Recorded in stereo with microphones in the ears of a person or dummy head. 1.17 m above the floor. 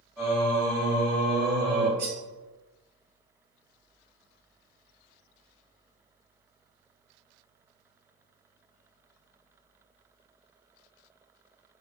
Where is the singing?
Centre (ahead or behind), 1.2 m.